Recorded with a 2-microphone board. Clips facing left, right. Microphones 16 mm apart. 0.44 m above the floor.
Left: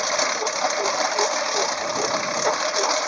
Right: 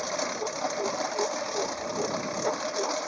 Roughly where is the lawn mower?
Left.